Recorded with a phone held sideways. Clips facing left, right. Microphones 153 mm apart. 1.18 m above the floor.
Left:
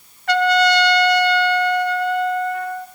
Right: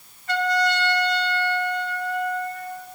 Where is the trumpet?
75° left (ahead or behind), 0.6 m.